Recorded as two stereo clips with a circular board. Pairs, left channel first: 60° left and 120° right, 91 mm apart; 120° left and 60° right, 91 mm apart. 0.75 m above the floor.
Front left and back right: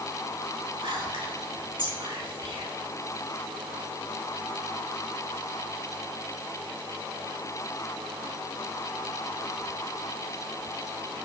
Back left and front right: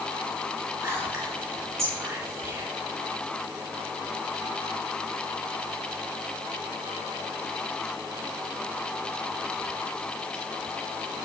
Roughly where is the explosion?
No explosion in this recording.